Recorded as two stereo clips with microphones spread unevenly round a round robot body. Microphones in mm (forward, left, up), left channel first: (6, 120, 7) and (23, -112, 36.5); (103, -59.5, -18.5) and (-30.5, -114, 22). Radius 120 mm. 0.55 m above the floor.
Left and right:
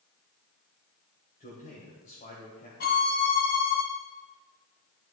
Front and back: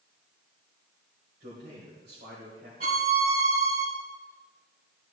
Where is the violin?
150° left, 1.5 m.